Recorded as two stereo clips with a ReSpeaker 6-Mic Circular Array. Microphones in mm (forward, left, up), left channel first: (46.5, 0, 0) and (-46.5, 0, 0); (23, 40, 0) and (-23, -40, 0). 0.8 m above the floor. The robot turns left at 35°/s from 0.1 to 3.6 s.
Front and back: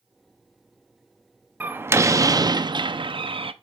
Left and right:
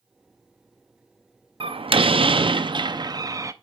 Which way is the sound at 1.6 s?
110° right.